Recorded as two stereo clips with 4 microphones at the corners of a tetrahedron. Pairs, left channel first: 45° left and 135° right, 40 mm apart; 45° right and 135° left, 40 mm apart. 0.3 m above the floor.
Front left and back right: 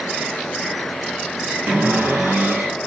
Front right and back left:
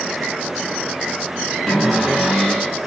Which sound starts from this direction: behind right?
A cupboard door, at 1.7 s.